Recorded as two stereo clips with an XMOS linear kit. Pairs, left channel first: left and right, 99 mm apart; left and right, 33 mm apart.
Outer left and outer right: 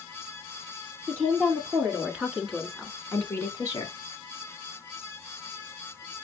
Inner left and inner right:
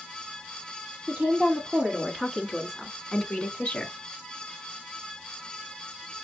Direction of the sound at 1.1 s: 25° right (ahead or behind).